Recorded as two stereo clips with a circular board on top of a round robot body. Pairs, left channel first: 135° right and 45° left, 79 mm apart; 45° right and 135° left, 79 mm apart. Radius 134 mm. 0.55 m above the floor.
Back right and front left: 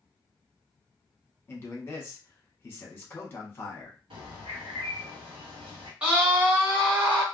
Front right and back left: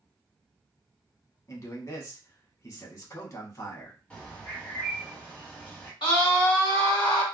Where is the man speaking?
80° right, 1.5 m.